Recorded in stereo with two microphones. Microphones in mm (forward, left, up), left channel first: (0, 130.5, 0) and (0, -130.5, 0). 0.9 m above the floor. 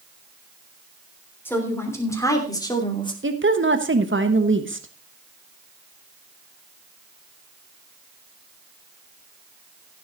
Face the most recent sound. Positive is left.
turn(degrees=-50)  # may be behind; listen again after turning